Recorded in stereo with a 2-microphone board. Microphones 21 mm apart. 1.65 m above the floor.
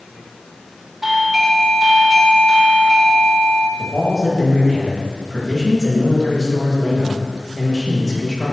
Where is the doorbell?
15° right (ahead or behind), 1.4 m.